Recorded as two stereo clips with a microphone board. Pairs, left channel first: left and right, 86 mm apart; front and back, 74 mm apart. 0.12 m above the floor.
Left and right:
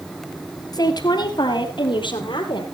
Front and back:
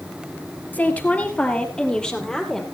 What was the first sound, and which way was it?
A woman speaking, 65° left.